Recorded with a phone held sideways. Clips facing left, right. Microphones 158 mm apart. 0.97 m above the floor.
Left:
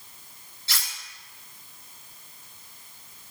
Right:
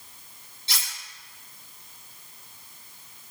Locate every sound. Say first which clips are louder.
0.7 s cutlery clinking: even; 20° right (ahead or behind), 3 m